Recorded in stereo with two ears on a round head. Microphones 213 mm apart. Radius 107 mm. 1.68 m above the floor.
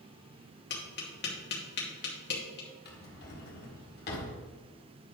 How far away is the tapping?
About 2 m.